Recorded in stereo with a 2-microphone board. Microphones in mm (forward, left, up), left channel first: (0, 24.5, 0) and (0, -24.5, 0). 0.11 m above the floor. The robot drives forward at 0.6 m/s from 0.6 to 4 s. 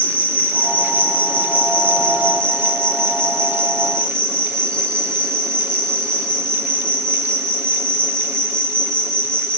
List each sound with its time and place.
0.0 s an insect: 35° left (ahead or behind), 3 m; by 9.6 s 20° left (ahead or behind), 4.5 m